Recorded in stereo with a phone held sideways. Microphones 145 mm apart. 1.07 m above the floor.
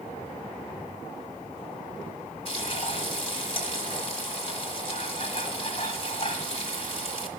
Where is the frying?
40° left (ahead or behind), 1.4 m.